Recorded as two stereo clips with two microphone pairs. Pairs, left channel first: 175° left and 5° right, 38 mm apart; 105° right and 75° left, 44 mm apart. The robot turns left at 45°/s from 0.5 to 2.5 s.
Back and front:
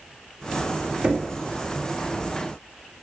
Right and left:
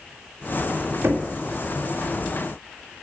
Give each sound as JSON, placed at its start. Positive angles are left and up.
{"t": 1.0, "sound": "knocking", "azimuth_deg": 55, "distance_m": 1.9}